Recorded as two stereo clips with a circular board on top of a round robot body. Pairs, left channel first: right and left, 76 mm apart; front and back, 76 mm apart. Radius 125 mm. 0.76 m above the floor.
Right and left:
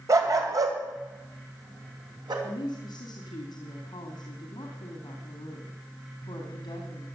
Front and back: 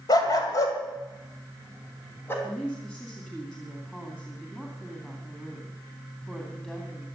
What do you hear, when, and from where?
0.1 s a dog barking: 40° left, 1.9 m; by 2.3 s 65° left, 3 m
2.4 s a woman speaking: 75° right, 2.5 m